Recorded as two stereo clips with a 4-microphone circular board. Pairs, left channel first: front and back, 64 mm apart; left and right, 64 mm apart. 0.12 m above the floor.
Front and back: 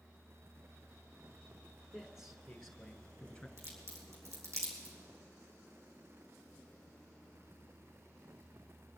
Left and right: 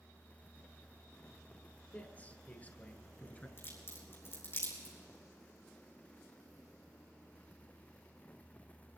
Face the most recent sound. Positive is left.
turn(degrees=140)